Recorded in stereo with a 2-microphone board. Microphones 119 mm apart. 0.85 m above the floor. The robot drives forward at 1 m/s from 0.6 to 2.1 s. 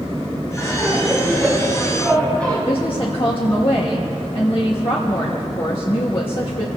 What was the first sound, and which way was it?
Laughter, 10° left (ahead or behind).